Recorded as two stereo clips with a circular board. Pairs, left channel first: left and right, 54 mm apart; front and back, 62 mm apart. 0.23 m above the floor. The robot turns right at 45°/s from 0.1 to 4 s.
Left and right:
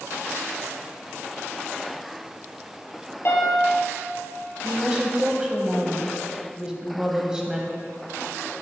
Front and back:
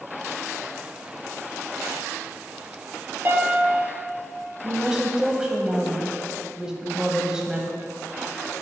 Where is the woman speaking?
130° right, 1.1 m.